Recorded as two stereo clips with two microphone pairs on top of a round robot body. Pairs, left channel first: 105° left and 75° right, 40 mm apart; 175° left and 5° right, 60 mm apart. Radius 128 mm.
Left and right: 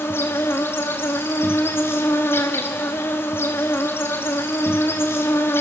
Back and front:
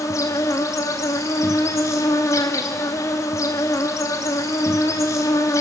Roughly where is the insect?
Behind left.